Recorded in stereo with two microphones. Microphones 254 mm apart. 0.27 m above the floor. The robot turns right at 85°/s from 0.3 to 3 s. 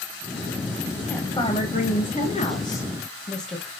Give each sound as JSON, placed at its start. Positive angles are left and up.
{"t": 1.1, "sound": "a woman speaking", "azimuth_deg": 10, "distance_m": 1.0}